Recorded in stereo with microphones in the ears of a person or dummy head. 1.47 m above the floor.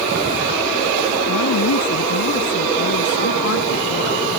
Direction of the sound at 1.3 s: 80° left.